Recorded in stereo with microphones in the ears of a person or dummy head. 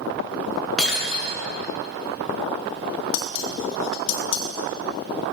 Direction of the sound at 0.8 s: 10° left (ahead or behind).